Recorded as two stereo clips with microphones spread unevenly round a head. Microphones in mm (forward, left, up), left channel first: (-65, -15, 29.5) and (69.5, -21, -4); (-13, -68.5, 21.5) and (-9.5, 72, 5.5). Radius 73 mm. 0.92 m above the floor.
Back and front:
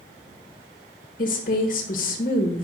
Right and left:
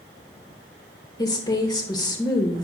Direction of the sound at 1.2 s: 155° right.